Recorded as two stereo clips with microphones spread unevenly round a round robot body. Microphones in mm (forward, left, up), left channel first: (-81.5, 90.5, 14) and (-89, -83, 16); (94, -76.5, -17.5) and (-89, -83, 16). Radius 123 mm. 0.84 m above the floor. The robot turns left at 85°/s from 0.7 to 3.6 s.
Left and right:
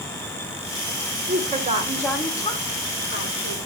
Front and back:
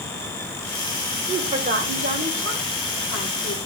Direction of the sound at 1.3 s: 105° right.